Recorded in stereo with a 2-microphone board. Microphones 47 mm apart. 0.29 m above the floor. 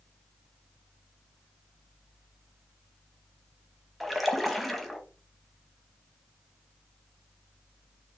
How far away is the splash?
About 0.6 m.